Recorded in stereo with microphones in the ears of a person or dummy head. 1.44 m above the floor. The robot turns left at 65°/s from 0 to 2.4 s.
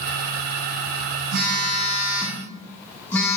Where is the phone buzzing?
120° right, 0.8 m; by 3.4 s 170° left, 0.8 m.